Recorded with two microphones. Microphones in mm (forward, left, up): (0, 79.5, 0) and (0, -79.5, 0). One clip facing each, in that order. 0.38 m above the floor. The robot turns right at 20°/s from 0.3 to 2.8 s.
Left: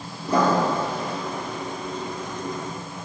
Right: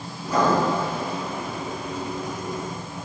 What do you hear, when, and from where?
0.3 s writing: 30° left (ahead or behind), 3 m; by 0.6 s 35° left (ahead or behind), 3 m